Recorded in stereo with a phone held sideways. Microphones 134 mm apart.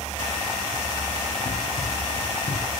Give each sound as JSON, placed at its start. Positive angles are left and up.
{"t": 1.4, "sound": "running footsteps", "side_deg": 60, "distance_m": 3.0}